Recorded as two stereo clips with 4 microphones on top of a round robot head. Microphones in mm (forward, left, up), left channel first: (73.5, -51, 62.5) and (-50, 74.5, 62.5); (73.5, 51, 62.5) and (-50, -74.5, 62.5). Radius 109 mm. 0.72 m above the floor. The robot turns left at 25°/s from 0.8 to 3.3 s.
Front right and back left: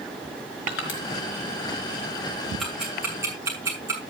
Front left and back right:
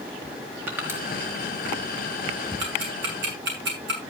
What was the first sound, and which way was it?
Crushing, 55° right.